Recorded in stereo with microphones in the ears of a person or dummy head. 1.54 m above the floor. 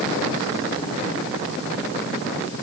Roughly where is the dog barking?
I don't hear a dog barking.